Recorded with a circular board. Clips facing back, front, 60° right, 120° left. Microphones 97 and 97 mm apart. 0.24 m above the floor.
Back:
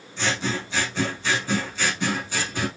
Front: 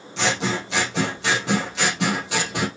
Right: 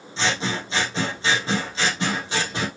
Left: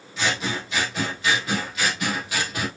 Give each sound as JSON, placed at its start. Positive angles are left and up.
{"t": 0.2, "sound": "scissors", "azimuth_deg": 5, "distance_m": 3.5}